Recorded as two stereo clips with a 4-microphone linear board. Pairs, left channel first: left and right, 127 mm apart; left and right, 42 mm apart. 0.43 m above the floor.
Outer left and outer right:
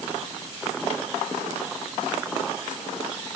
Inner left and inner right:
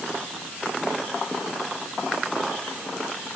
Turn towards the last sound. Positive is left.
No sound to turn to.